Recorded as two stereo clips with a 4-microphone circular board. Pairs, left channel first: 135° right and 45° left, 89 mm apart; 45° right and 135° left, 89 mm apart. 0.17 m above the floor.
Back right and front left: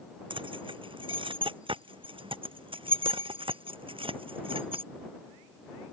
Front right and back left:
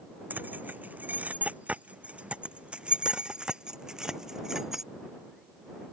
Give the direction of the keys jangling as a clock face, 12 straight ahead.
10 o'clock.